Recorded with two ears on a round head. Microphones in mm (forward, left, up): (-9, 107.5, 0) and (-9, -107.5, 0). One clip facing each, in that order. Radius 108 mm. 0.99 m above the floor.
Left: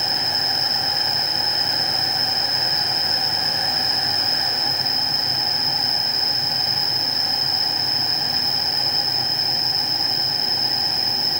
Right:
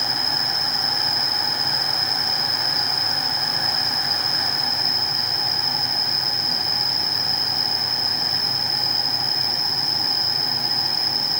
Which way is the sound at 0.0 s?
5° right (ahead or behind).